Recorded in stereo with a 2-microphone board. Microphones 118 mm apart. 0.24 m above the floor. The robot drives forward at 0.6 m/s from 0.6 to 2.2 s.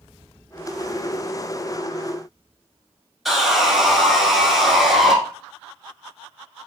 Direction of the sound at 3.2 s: Centre (ahead or behind).